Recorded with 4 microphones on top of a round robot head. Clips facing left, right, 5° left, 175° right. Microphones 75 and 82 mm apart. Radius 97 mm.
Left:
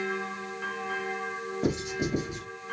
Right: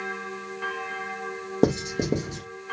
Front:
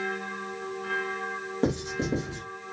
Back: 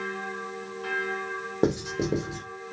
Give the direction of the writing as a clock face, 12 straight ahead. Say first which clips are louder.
Right 7 dB, back 3 dB; 3 o'clock.